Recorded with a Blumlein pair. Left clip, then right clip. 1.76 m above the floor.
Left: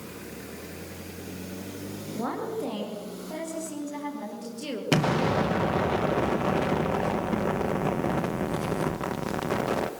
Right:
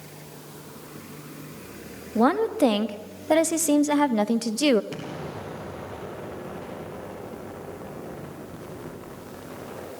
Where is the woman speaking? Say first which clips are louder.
Right 11 dB; 35° right, 3 m; by 4.8 s 55° right, 1.7 m.